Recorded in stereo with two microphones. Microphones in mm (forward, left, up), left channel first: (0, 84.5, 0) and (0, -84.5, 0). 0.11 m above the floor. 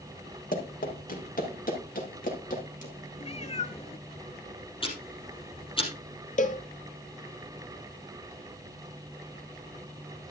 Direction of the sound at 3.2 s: 40° left (ahead or behind).